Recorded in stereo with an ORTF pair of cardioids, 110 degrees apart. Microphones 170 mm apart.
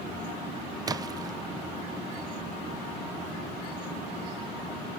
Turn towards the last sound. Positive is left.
turn(degrees=-25)